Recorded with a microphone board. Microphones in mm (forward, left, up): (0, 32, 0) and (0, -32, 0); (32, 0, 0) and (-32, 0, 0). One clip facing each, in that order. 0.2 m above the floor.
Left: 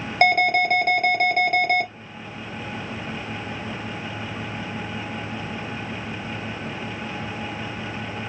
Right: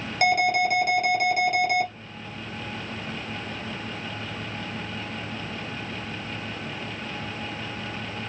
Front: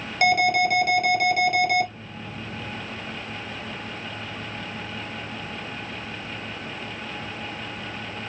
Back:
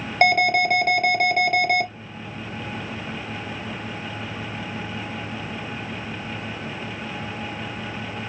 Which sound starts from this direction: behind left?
An alarm, at 0.2 s.